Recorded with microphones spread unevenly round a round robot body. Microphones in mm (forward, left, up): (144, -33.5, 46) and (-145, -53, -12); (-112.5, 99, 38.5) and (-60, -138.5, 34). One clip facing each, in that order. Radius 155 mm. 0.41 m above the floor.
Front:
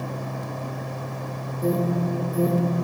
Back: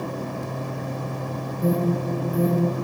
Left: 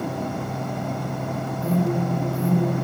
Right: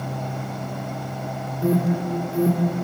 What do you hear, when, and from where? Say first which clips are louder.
1.6 s an alarm: even, right 2 dB; 100° right, 5.5 m